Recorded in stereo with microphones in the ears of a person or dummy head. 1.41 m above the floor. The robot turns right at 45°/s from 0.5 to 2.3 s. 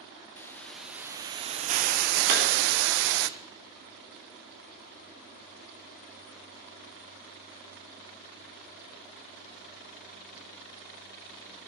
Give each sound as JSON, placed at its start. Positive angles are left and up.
{"t": 0.4, "sound": "a hiss", "azimuth_deg": 170, "distance_m": 0.5}
{"t": 2.3, "sound": "a clap", "side_deg": -55, "distance_m": 3.5}